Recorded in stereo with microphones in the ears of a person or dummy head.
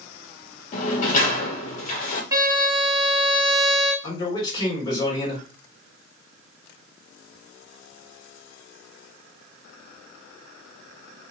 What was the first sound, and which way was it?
A sliding door, 45° left (ahead or behind).